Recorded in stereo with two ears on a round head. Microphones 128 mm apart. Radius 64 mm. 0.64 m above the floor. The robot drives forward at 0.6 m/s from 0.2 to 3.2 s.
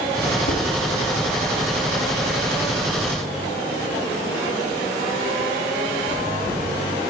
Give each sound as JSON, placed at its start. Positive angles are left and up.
{"t": 0.5, "sound": "dishes clattering", "side_deg": 45, "distance_m": 3.5}